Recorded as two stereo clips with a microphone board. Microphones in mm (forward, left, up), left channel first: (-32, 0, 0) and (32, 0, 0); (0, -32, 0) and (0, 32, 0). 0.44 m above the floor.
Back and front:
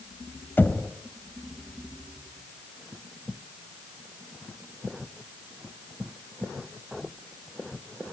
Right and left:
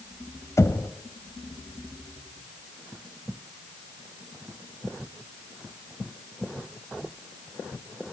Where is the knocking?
125° right, 1.9 m.